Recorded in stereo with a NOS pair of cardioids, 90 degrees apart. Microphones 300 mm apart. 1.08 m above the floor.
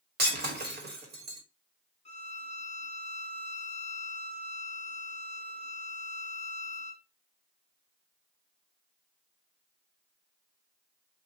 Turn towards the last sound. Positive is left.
turn(degrees=20)